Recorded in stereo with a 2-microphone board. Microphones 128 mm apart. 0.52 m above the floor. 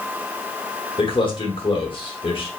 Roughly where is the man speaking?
Left.